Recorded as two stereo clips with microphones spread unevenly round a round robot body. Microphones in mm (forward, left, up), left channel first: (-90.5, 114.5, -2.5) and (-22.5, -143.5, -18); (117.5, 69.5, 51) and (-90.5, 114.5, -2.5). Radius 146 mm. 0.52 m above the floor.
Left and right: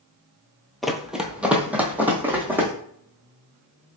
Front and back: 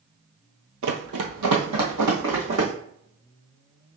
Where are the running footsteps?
170° right, 0.6 m; by 2.7 s 160° right, 1.6 m.